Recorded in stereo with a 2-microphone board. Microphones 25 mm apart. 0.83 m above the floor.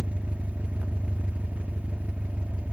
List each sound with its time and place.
0.0 s an engine running: 80° right, 0.7 m